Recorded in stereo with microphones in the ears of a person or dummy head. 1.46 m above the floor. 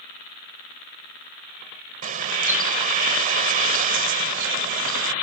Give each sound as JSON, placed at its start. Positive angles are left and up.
{"t": 2.0, "sound": "a bird", "side_deg": -45}